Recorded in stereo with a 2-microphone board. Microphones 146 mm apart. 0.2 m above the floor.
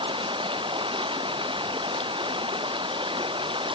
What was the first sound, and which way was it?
Running water, 35° right (ahead or behind).